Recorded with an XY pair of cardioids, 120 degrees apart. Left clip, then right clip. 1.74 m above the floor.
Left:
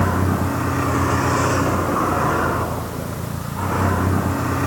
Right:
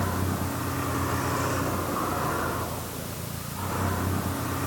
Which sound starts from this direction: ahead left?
A vehicle, at 0.0 s.